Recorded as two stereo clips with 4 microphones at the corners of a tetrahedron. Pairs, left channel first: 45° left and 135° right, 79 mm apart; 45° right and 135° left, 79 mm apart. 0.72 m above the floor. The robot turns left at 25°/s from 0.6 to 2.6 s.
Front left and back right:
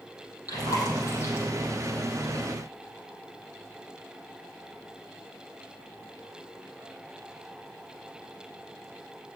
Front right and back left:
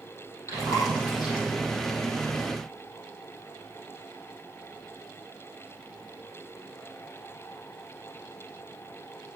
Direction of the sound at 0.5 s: 5° left.